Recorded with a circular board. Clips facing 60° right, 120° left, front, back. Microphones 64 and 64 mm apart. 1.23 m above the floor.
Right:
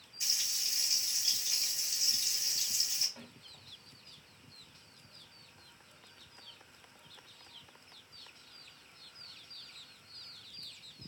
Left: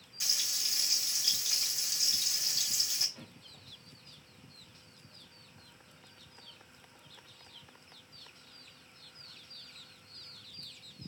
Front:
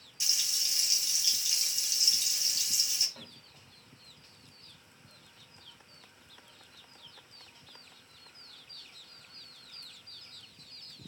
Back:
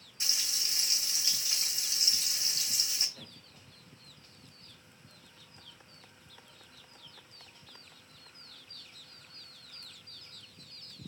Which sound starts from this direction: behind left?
Frying, at 0.2 s.